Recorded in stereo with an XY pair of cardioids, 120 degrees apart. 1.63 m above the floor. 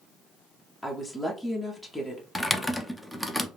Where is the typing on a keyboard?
Straight ahead, 0.5 m.